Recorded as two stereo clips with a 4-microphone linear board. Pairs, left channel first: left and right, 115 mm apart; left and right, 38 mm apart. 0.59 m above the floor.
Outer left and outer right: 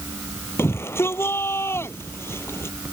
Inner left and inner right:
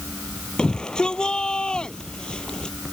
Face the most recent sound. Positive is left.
turn(degrees=20)  # may be behind; listen again after turning